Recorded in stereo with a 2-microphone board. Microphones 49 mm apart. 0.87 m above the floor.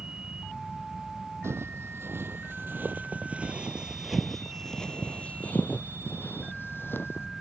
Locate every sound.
1.4 s footsteps: 65° right (ahead or behind); by 7.3 s 50° left (ahead or behind)